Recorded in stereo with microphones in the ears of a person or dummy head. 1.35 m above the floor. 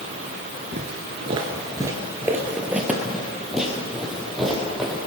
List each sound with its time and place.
0.7 s footsteps: 30° right (ahead or behind), 1.4 m; by 5.0 s centre (ahead or behind), 3.5 m